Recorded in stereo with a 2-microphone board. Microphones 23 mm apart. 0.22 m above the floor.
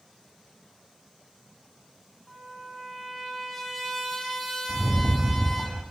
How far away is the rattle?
About 0.9 m.